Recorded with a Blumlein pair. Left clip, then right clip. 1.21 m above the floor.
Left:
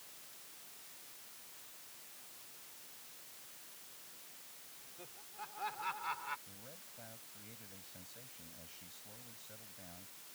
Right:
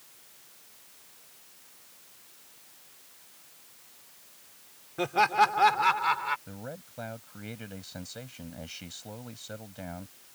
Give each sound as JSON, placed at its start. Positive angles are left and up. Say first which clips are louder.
{"t": 5.0, "sound": "laughter", "louder": "right 29 dB", "azimuth_deg": -40}
{"t": 6.5, "sound": "a man speaking", "louder": "right 13 dB", "azimuth_deg": -55}